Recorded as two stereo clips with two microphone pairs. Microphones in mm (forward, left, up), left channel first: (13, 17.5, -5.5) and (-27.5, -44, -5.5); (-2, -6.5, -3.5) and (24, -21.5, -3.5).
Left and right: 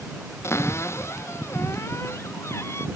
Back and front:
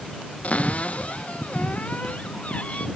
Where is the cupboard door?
110° left.